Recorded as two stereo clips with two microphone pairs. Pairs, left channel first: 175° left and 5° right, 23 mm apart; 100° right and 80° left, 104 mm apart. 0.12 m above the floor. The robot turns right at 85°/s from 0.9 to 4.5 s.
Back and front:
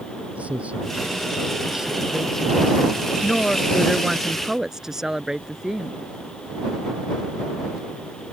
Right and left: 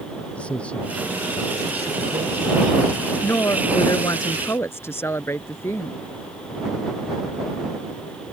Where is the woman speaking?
160° right; by 6.0 s 50° right.